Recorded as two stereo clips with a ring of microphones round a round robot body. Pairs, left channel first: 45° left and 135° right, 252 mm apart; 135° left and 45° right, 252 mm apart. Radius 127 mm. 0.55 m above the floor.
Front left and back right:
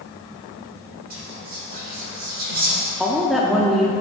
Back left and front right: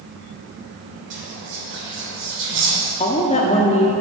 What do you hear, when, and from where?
1.1 s whispering: 85° right, 2.5 m
3.0 s a woman speaking: 135° left, 0.6 m